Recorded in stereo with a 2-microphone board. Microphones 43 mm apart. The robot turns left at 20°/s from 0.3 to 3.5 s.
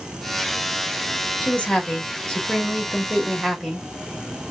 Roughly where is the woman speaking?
Ahead left.